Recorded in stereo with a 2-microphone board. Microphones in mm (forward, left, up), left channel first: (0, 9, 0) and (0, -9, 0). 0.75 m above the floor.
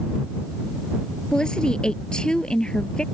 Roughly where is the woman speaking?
Left.